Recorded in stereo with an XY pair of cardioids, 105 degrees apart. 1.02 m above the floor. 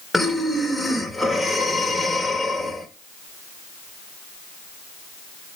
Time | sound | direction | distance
0.1 | breathing | 5° left | 1.4 m